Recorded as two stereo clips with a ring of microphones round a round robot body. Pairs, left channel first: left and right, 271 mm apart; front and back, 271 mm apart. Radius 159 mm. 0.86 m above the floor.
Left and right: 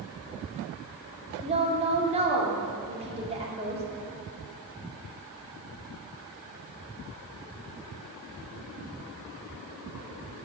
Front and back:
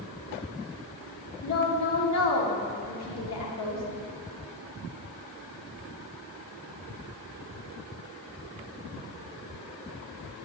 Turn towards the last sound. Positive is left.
turn(degrees=-20)